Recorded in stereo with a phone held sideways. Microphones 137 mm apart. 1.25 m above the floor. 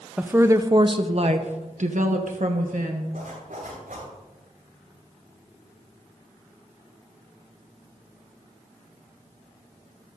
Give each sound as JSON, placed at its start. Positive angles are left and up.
{"t": 0.2, "sound": "a woman speaking", "side_deg": -10, "distance_m": 0.7}
{"t": 3.1, "sound": "a zipper", "side_deg": -85, "distance_m": 6.0}